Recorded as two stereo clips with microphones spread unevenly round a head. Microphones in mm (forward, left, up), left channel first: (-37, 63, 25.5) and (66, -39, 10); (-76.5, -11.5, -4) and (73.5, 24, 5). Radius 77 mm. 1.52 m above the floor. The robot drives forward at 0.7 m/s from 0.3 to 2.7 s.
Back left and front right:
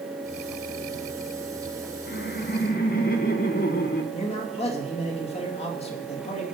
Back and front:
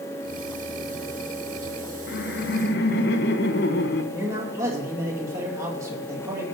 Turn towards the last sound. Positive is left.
turn(degrees=85)